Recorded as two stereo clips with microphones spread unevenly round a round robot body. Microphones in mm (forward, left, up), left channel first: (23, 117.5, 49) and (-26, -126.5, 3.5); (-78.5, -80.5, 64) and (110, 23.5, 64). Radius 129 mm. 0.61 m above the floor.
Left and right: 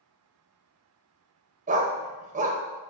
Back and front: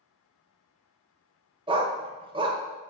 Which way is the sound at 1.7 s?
40° right.